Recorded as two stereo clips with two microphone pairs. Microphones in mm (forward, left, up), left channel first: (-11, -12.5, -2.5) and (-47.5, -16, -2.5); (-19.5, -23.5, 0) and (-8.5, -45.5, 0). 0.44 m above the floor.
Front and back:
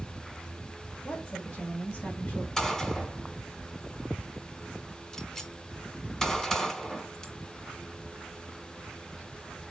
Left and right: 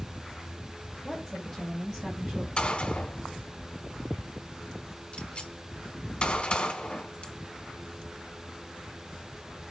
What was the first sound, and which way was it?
A woman speaking, 30° left.